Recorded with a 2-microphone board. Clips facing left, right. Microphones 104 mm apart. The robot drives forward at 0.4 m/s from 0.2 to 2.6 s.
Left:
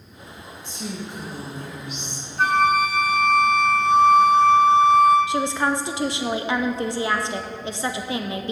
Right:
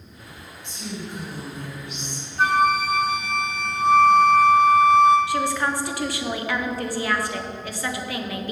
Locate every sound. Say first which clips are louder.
0.6 s a woman speaking: left 1 dB; 40° left (ahead or behind), 1.9 m; by 2.3 s 55° left (ahead or behind), 1.5 m
2.4 s a flute: left 1 dB; centre (ahead or behind), 1.4 m
5.3 s a woman speaking: left 1 dB; 25° left (ahead or behind), 0.6 m